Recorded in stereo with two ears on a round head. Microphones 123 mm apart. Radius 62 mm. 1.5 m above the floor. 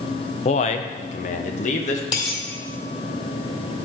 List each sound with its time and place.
0.5 s a man speaking: 50° left (ahead or behind), 0.5 m; by 2.0 s 55° left (ahead or behind), 1.3 m
2.1 s a dropped coin: 35° left (ahead or behind), 1.9 m